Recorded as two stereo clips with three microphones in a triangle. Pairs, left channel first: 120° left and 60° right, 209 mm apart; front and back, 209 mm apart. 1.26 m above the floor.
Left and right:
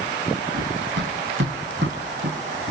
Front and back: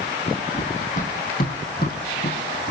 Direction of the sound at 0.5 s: 50° right.